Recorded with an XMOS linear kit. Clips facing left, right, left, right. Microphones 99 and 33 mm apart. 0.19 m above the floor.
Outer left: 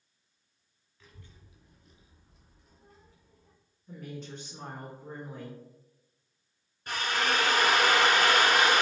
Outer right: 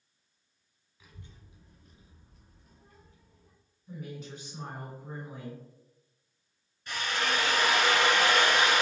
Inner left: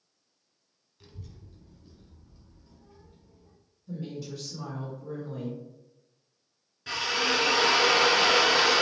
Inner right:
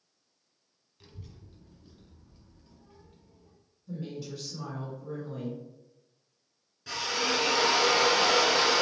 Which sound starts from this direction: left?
A drill, at 6.9 s.